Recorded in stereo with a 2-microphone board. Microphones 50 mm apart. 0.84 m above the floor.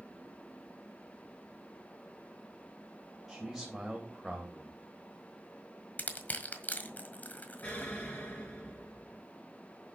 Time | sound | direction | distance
3.3 | a man speaking | 10° right (ahead or behind) | 3 m
6.0 | crushing | 35° left (ahead or behind) | 1.5 m
7.6 | an explosion | 30° left (ahead or behind) | 6 m